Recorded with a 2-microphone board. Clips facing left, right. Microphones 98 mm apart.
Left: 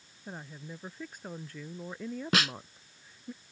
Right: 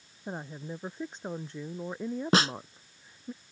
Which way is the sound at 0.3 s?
30° right (ahead or behind).